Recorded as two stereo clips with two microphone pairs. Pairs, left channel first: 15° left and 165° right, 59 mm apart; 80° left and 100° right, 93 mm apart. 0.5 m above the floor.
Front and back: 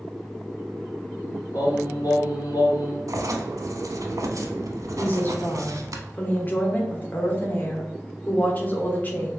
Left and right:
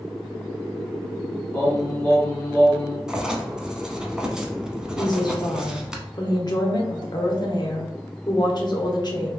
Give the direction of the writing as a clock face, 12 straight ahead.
6 o'clock.